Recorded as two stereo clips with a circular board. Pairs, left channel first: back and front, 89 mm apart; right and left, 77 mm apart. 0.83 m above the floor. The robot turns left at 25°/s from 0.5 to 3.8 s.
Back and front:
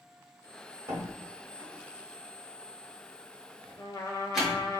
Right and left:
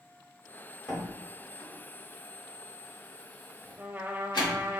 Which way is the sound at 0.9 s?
10° right.